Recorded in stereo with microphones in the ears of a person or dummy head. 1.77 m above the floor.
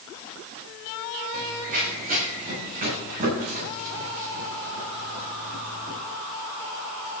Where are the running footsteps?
45° right (ahead or behind), 7 m; by 6.0 s 35° right (ahead or behind), 14 m.